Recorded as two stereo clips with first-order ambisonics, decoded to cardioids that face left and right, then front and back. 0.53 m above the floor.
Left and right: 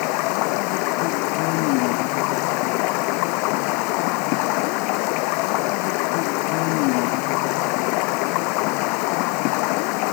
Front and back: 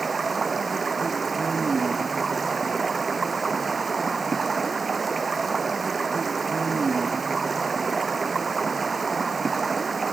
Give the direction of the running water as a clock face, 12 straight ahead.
8 o'clock.